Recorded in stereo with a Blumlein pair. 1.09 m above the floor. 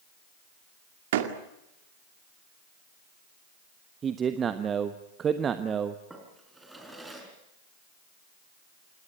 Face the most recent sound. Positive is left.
turn(degrees=-5)